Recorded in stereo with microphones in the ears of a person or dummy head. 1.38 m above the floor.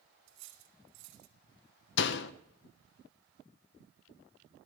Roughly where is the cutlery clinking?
Right.